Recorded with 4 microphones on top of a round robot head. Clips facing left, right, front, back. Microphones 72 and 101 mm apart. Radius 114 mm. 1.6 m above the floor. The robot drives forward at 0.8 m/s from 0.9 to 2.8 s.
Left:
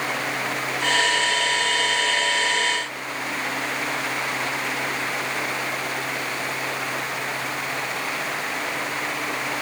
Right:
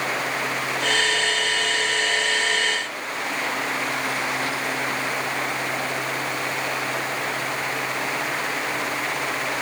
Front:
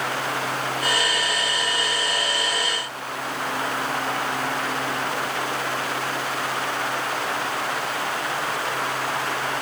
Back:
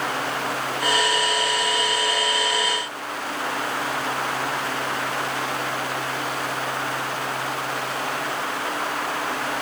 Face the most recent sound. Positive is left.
No sound to turn to.